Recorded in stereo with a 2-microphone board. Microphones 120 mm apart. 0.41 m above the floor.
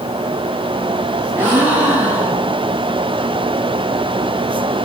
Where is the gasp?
15° right (ahead or behind), 3 m.